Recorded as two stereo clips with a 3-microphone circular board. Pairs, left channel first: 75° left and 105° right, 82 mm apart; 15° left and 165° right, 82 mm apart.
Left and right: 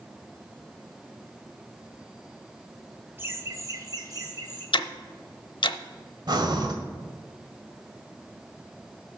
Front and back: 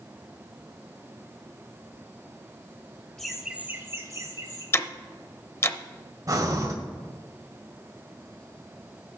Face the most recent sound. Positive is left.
turn(degrees=-125)